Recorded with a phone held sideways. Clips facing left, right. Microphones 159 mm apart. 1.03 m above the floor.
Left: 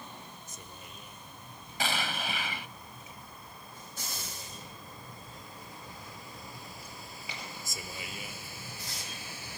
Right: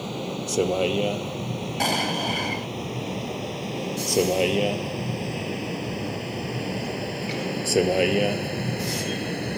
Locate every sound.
0.0 s a vehicle: 90° right; by 9.6 s 65° right (ahead or behind)
1.8 s an explosion: 40° right (ahead or behind)